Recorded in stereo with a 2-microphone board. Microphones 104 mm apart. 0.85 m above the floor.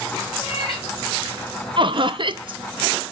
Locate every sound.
0.4 s a cat meowing: centre (ahead or behind), 4.5 m
1.8 s laughter: 50° right (ahead or behind), 0.6 m